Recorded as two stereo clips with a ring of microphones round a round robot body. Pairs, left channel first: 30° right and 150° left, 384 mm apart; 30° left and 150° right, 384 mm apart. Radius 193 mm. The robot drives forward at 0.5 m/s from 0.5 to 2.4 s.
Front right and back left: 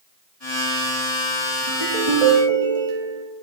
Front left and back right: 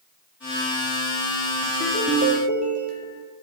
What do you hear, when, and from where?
1.7 s a ringtone: 140° left, 3 m; by 3.2 s 145° left, 3 m